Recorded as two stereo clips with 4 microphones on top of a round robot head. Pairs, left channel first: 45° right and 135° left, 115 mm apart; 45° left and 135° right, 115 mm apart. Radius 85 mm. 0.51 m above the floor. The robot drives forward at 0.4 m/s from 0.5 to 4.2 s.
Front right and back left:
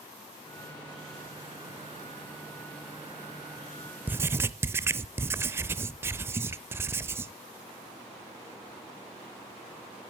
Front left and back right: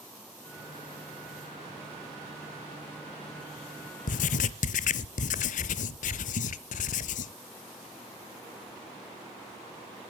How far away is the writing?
About 0.5 m.